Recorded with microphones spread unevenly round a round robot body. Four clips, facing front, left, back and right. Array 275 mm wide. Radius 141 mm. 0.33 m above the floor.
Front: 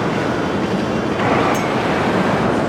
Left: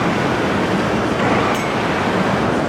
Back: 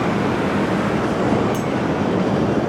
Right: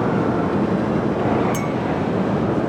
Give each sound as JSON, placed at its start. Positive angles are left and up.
{"t": 1.5, "sound": "a clink", "azimuth_deg": -85, "distance_m": 0.7}